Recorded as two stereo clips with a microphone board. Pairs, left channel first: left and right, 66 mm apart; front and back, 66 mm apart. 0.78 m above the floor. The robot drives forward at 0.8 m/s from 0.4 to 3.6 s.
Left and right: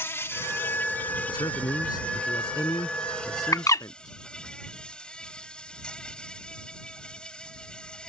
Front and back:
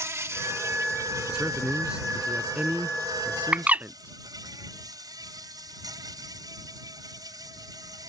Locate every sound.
0.0 s an insect: 140° left; by 8.1 s 165° left
1.3 s a man speaking: 100° left; by 4.1 s 115° left
3.5 s a bird: 110° left; by 3.9 s 115° left